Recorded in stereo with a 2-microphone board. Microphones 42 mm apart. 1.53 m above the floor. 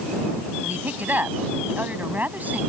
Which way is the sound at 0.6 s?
45° right (ahead or behind).